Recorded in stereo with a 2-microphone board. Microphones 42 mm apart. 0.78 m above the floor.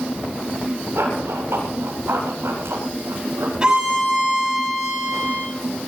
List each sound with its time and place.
0.9 s running footsteps: 75° right (ahead or behind), 9 m; by 3.5 s 85° right, 11 m
3.6 s a violin: 20° right (ahead or behind), 6.5 m